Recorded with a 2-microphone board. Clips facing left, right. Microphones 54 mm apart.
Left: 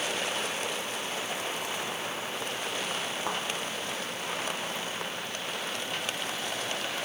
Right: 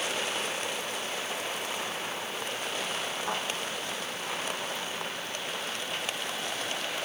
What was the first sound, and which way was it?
A thud, 45° left (ahead or behind).